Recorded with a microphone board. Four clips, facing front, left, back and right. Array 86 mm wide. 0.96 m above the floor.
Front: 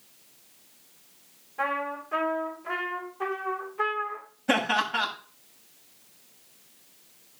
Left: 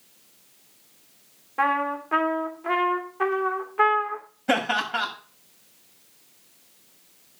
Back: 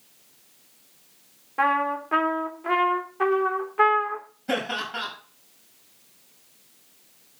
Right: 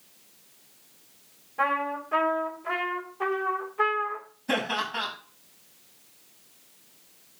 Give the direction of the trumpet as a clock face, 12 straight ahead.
7 o'clock.